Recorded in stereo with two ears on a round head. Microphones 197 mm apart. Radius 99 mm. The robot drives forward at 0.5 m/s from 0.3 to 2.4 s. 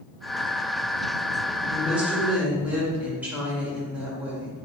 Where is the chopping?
No chopping in this recording.